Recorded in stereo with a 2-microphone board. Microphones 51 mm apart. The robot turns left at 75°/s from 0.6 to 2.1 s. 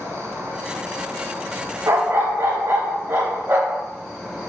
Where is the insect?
65° right, 0.8 m; by 4.5 s 175° right, 0.8 m.